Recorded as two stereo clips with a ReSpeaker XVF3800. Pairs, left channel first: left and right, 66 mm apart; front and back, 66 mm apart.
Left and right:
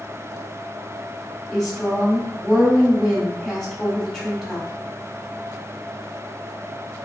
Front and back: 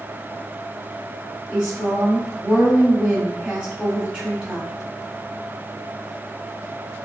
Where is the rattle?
I don't hear a rattle.